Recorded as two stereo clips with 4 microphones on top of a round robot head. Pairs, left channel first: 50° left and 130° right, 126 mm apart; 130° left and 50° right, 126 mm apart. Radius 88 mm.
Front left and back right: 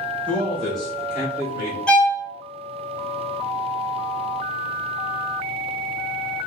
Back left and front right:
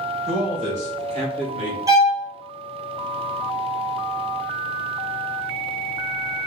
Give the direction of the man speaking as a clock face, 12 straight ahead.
1 o'clock.